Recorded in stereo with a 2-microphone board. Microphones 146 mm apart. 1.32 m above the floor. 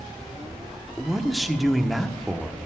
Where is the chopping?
I don't hear chopping.